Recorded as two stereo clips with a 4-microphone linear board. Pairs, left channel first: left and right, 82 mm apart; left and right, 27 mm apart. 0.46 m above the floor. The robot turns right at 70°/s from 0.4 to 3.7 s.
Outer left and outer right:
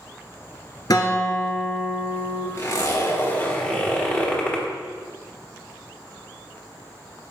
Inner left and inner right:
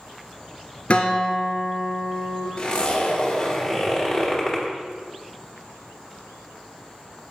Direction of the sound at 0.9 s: 125° left.